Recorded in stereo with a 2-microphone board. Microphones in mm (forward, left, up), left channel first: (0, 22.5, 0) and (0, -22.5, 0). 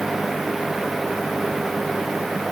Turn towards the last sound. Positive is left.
No sound to turn to.